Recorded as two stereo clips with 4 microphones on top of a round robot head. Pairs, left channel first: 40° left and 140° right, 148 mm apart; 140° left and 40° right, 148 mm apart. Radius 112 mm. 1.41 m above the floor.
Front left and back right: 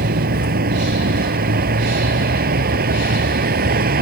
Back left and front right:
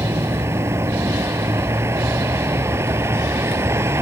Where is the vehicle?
115° right.